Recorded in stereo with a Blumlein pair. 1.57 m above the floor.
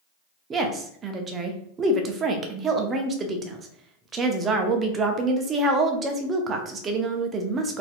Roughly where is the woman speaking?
Ahead.